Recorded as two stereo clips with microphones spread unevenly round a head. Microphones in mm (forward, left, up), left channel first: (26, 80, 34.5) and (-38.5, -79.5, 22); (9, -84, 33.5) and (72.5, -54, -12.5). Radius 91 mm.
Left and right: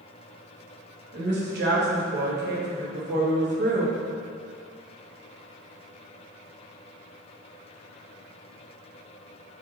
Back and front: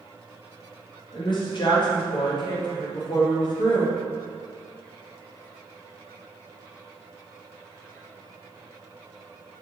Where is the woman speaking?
135° right, 2 m.